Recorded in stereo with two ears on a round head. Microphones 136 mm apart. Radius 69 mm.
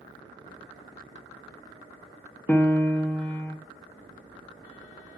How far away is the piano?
About 1.1 m.